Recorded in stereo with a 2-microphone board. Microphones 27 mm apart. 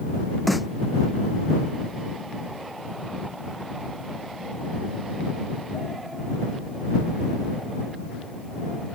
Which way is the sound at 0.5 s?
Centre (ahead or behind).